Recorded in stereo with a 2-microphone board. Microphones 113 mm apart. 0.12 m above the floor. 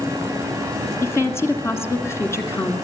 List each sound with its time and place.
1.0 s a woman speaking: 25° left (ahead or behind), 1.8 m